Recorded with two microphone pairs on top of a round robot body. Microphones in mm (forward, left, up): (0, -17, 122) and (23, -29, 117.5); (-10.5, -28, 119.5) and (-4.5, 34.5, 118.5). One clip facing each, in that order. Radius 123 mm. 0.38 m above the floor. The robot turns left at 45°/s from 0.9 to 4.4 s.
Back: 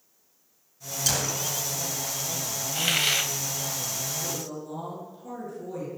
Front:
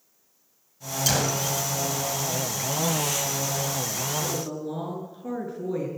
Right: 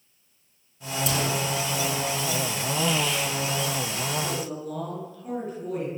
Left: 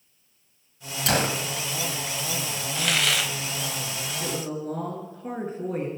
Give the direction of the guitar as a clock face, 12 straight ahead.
No guitar in this recording.